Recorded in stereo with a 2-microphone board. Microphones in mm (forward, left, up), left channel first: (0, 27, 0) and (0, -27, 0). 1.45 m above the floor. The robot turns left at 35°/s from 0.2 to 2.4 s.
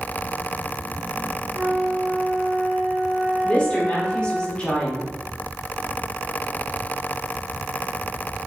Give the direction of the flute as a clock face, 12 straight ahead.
4 o'clock.